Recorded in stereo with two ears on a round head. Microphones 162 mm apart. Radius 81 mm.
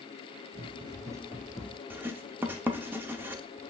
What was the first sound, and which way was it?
Running footsteps, 30° right (ahead or behind).